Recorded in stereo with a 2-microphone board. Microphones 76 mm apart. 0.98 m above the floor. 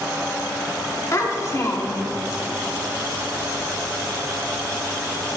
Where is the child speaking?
40° left (ahead or behind), 1.5 m.